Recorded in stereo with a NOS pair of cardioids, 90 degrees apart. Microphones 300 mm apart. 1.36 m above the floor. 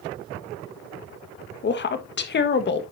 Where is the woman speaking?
35° left, 1.5 m.